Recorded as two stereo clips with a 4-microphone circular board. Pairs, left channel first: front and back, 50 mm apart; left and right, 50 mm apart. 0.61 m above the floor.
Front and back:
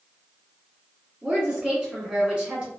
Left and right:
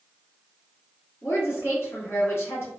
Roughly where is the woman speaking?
Left.